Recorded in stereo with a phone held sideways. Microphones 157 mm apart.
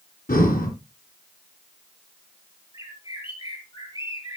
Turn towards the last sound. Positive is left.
turn(degrees=35)  # may be behind; listen again after turning